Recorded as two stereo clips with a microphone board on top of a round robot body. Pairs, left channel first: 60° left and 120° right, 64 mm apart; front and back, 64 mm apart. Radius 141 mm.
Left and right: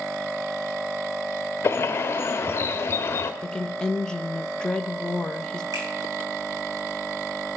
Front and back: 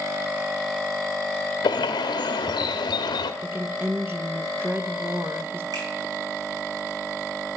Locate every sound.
1.6 s a bird: 5° left, 0.9 m
3.4 s a woman speaking: 135° left, 0.9 m
5.7 s a finger snap: 150° right, 5.5 m